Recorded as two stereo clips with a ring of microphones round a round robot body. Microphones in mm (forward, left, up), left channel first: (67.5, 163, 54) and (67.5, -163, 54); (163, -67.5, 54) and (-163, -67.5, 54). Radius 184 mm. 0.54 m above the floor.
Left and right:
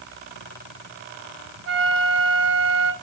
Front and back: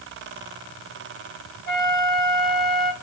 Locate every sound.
1.7 s a flute: 50° right, 2.0 m